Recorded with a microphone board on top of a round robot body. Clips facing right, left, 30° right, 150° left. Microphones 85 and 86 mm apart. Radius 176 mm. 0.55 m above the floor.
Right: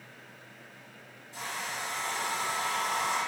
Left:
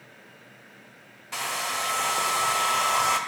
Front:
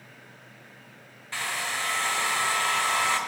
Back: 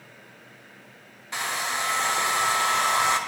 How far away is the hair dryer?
About 1.3 m.